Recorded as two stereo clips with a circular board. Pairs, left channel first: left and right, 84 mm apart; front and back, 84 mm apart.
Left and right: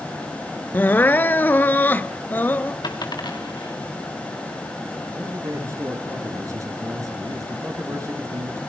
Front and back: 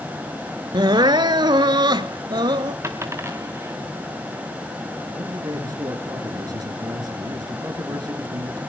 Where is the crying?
155° left, 0.7 m.